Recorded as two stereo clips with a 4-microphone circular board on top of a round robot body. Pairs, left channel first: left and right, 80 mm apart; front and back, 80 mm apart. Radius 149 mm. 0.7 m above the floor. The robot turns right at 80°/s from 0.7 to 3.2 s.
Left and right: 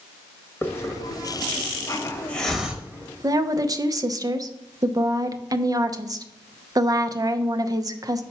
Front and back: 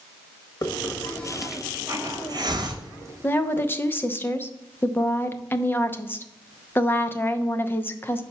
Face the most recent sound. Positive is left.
turn(degrees=-60)